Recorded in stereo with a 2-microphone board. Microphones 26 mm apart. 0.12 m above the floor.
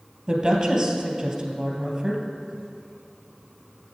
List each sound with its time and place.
0.3 s a woman speaking: 20° right (ahead or behind), 3 m